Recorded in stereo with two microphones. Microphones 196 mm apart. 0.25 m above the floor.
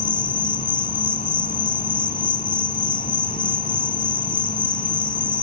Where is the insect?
45° left (ahead or behind), 0.8 m.